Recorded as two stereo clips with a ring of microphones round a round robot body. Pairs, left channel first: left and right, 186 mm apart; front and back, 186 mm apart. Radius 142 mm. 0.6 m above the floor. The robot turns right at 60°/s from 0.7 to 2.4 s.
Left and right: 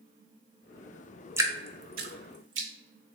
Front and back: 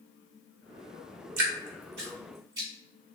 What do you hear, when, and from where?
1.4 s dripping: 170° right, 0.5 m; by 2.7 s 105° right, 0.5 m